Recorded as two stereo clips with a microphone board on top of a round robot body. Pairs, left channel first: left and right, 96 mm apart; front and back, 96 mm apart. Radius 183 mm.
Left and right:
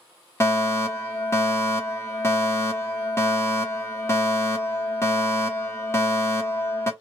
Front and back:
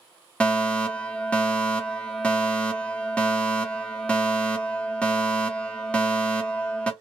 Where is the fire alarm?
65° left, 1.3 m.